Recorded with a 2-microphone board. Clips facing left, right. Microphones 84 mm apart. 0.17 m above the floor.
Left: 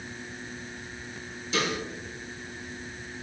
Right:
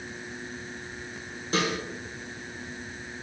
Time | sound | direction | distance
1.5 | a snare drum | 50° right (ahead or behind) | 3.5 m